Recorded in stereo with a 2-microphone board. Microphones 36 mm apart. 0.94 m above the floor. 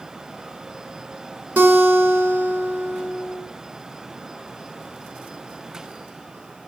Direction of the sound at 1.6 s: 65° right (ahead or behind).